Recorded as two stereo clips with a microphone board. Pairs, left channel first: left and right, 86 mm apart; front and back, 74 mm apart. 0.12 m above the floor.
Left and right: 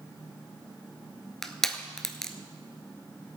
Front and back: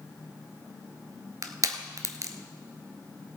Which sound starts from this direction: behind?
Crushing, at 1.4 s.